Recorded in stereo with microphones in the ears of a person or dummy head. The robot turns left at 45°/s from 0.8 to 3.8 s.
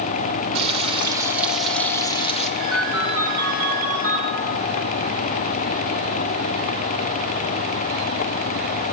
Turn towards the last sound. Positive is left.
turn(degrees=-40)